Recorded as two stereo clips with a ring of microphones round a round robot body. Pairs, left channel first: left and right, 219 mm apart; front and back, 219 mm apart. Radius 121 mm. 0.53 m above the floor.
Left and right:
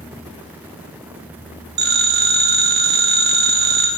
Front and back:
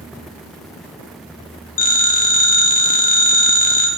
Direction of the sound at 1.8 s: 50° right.